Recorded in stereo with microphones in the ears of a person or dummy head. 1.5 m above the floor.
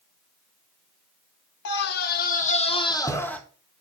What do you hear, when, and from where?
1.6 s a scream: 65° left (ahead or behind), 1.5 m; by 3.4 s 5° left (ahead or behind), 1.4 m